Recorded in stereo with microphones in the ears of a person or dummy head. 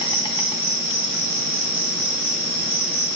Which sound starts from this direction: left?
An insect, at 0.0 s.